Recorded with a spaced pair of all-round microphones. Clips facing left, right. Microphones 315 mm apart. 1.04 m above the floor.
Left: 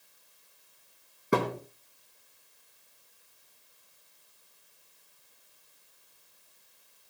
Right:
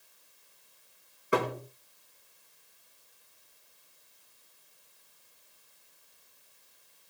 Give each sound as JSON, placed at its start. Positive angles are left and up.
{"t": 1.3, "sound": "a thud", "side_deg": 50, "distance_m": 3.5}